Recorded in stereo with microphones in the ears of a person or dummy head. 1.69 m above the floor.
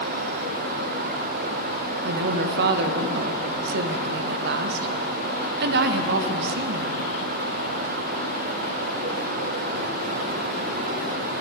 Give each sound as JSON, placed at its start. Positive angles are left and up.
{"t": 2.0, "sound": "a woman speaking", "side_deg": -60, "distance_m": 0.5}